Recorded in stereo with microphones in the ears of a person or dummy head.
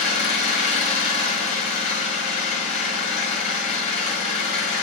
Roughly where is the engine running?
Left.